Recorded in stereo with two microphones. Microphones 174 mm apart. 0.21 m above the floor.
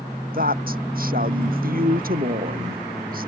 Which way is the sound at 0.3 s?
55° right (ahead or behind).